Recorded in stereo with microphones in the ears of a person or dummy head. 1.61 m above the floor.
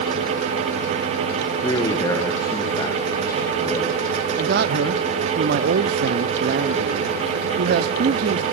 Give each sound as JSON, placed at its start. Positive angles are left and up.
{"t": 1.6, "sound": "a man speaking", "side_deg": 20, "distance_m": 1.5}
{"t": 4.4, "sound": "a man speaking", "side_deg": -60, "distance_m": 0.7}